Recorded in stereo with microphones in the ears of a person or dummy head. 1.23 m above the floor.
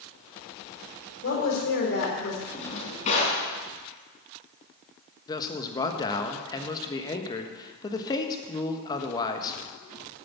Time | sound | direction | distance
1.2 | a woman speaking | 65° left (ahead or behind) | 3.5 m
2.5 | a drawer | 40° left (ahead or behind) | 3.5 m
5.3 | a man speaking | 25° left (ahead or behind) | 1.3 m